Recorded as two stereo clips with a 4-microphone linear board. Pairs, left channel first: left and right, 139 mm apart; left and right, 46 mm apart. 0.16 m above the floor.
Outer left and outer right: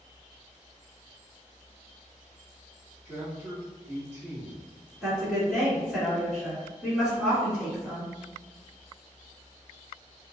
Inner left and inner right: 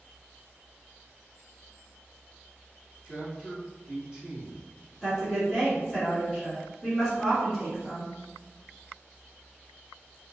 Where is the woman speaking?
5° right (ahead or behind), 1.9 m.